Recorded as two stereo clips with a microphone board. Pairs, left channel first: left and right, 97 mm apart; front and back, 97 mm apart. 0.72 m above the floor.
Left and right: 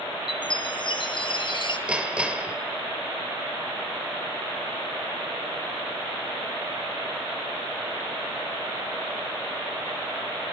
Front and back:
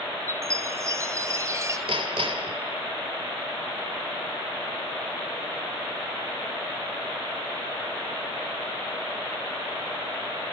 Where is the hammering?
165° right, 2.5 m.